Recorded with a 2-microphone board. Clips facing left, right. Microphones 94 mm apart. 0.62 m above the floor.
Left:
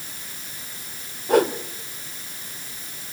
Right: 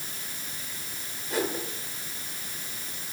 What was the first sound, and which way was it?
A whoosh, 65° left (ahead or behind).